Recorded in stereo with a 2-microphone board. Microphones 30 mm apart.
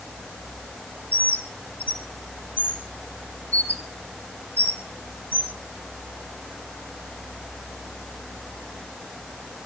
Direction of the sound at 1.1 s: 75° left (ahead or behind).